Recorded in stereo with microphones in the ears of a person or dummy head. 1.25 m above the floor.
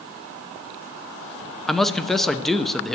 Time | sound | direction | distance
1.7 | a man speaking | centre (ahead or behind) | 0.7 m